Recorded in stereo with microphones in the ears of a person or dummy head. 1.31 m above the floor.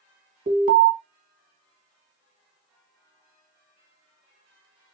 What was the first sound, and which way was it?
An alarm, 40° right (ahead or behind).